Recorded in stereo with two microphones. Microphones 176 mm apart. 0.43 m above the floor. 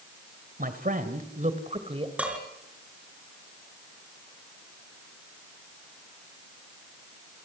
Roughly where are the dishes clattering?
Centre.